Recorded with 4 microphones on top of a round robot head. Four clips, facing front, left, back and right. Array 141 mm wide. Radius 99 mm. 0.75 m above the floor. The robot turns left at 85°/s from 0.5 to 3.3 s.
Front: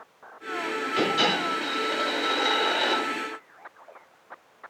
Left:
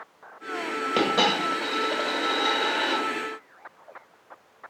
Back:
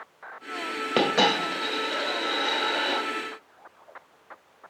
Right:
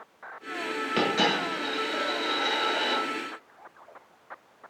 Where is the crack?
I don't hear a crack.